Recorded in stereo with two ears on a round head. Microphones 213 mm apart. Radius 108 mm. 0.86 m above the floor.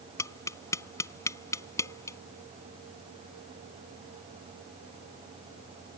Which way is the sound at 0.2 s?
15° left (ahead or behind).